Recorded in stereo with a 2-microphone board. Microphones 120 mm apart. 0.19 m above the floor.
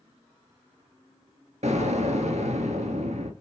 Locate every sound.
1.6 s an explosion: 75° right (ahead or behind), 1.0 m